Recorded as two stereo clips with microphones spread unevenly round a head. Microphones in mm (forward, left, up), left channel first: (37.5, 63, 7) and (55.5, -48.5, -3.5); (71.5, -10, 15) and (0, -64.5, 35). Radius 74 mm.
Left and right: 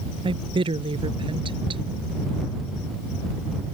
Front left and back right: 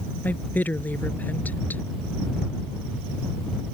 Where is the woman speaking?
35° right.